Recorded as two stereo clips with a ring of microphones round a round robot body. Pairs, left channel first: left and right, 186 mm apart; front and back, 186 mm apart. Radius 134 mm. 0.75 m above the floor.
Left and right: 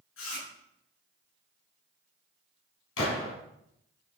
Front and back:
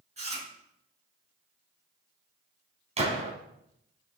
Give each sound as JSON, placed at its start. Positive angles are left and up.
{"t": 0.2, "sound": "chewing", "azimuth_deg": 125, "distance_m": 7.0}
{"t": 3.0, "sound": "a gunshot", "azimuth_deg": 125, "distance_m": 4.0}